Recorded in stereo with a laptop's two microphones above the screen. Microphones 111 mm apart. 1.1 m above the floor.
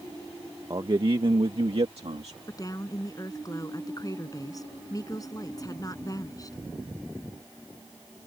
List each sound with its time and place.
0.7 s a man speaking: 40° right (ahead or behind); by 2.4 s 70° right (ahead or behind)
2.5 s a woman speaking: 35° left (ahead or behind)